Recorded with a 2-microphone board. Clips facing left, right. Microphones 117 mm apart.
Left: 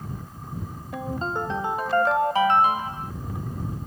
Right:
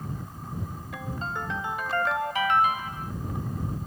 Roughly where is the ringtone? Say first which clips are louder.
Left 6 dB; left.